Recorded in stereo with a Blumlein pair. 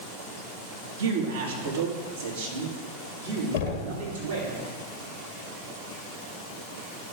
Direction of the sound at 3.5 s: 50° left.